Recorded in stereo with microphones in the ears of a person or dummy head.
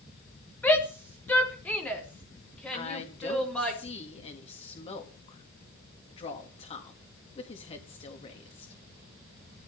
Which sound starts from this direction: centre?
A shout, at 0.6 s.